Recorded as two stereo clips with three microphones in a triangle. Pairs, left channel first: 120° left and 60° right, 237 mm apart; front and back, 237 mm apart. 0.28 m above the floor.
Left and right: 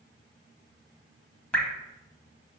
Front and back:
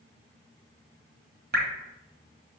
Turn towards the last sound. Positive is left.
turn(degrees=-155)